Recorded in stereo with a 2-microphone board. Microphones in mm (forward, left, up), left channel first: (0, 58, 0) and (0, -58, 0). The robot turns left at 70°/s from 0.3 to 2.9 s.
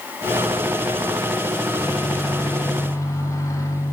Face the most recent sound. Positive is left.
turn(degrees=30)  # may be behind; listen again after turning